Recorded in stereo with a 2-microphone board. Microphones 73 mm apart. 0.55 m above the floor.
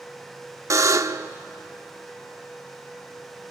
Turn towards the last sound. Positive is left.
turn(degrees=-45)  # may be behind; listen again after turning